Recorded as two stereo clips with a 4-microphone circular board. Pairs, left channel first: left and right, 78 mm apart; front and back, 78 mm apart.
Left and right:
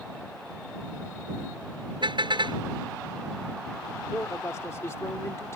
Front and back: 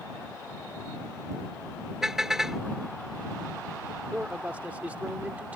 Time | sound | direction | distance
2.0 | a car horn | 95° right | ?
4.1 | a man speaking | 120° left | ?